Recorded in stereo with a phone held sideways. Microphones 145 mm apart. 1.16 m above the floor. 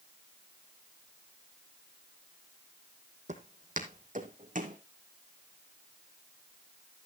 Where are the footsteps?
55° right (ahead or behind), 2 m; by 4.8 s 65° right (ahead or behind), 3 m.